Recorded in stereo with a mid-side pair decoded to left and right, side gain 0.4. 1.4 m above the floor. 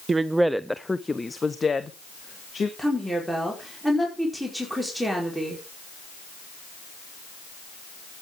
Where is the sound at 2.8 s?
5° right, 4.5 m.